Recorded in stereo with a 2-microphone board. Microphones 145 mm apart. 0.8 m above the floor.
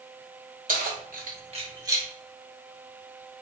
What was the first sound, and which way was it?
Keys jangling, 70° right (ahead or behind).